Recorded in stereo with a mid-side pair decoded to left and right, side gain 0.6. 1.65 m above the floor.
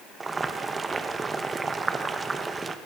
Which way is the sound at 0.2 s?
20° right.